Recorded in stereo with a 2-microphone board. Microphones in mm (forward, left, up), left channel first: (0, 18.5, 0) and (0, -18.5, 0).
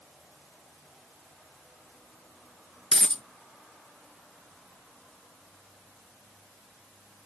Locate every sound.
2.9 s a dropped coin: 25° left (ahead or behind), 0.7 m